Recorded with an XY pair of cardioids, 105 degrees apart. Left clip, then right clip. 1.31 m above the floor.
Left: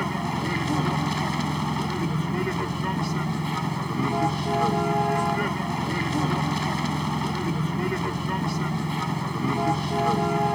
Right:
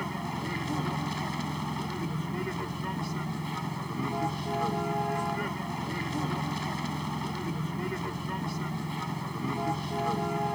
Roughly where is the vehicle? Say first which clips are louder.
Left 7 dB; ahead left.